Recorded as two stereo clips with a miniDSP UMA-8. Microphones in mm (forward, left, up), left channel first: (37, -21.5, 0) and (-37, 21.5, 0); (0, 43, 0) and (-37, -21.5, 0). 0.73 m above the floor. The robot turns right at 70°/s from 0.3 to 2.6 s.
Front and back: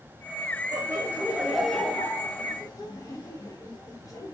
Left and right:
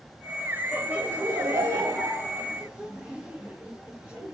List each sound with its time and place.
0.7 s laughter: 175° left, 0.9 m; by 4.3 s 55° right, 0.9 m